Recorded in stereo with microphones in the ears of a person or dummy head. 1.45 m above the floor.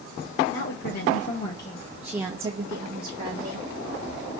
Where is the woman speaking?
60° left (ahead or behind), 1.1 m; by 3.7 s 60° right (ahead or behind), 1.4 m.